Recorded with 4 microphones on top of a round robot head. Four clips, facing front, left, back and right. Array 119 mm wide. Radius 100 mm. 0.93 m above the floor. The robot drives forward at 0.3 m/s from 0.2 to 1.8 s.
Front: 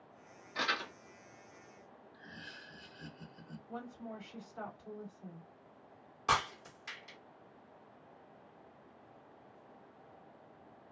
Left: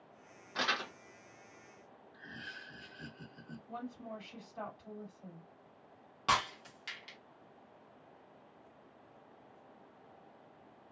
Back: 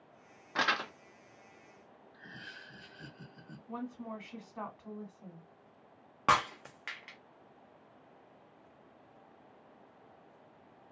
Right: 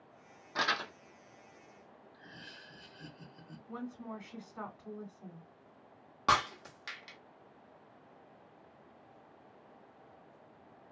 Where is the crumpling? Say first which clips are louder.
Right 2 dB, back 4 dB; 165° right, 1.0 m; by 0.9 s 170° right, 1.1 m.